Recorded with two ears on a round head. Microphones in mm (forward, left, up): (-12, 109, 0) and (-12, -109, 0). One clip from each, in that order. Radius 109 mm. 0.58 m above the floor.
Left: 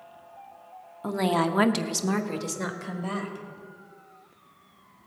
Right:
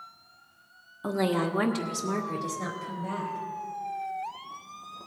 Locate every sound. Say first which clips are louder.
1.0 s a woman speaking: left 2 dB; centre (ahead or behind), 0.9 m; by 3.4 s 65° left (ahead or behind), 2.5 m